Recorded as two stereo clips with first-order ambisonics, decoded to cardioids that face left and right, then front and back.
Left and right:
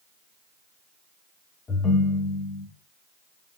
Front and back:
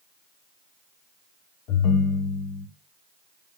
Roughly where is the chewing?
I don't hear chewing.